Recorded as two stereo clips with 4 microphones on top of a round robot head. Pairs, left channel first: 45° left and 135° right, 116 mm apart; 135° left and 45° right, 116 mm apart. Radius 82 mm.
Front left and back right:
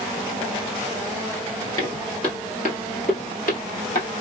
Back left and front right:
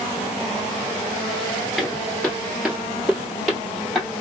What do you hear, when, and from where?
1.8 s footsteps: 55° left, 1.2 m; by 4.1 s 45° left, 2 m